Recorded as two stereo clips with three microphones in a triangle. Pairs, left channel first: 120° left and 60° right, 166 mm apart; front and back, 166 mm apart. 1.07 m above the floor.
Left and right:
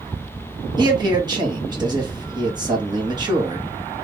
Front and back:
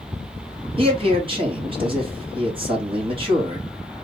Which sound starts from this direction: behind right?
A man speaking, at 0.8 s.